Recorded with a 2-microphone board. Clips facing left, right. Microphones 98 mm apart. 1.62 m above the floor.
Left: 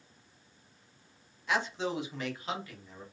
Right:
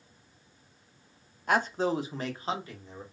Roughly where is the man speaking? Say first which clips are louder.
Right 5 dB; right.